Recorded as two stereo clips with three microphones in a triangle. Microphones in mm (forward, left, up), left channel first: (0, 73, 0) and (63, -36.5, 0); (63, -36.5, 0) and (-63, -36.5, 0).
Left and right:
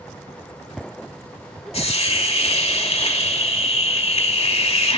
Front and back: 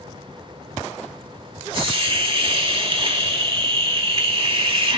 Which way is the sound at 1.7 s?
145° left.